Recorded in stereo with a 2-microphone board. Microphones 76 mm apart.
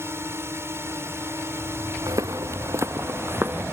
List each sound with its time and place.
0.0 s a drone: 35° right (ahead or behind)
2.1 s footsteps: 45° right (ahead or behind); by 3.6 s 25° right (ahead or behind)